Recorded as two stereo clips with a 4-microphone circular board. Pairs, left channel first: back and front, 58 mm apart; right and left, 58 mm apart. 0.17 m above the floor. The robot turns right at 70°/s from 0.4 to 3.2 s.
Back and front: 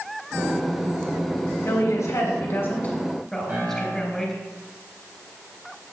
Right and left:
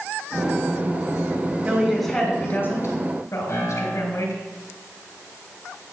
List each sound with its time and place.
1.6 s a woman speaking: 160° left, 3 m; by 4.4 s 95° right, 3 m
3.5 s a piano: 55° right, 4 m